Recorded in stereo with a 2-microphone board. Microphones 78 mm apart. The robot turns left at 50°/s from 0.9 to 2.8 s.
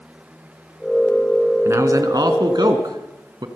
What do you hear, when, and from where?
1.6 s a man speaking: 40° right, 3 m; by 3.5 s 100° right, 3 m